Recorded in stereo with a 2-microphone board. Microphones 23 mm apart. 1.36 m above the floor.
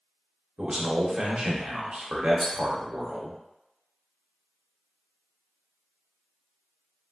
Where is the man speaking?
50° right (ahead or behind), 0.8 m.